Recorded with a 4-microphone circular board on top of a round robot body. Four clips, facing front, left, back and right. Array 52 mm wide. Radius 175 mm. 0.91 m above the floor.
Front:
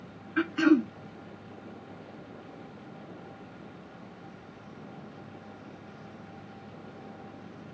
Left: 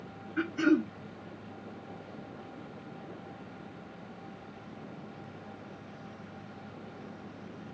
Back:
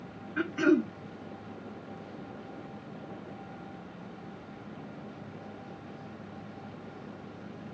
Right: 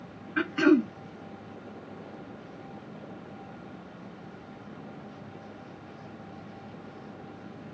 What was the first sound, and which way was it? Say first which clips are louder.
Throat clearing: right 4 dB, front 2 dB; 65° right.